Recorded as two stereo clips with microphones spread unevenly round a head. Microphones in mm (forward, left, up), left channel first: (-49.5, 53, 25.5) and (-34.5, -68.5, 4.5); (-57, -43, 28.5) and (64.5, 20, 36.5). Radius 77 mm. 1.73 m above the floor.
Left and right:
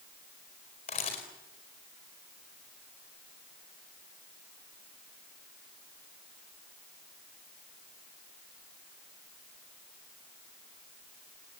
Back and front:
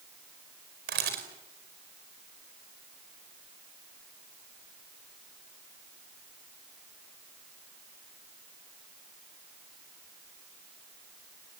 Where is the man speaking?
I don't hear a man speaking.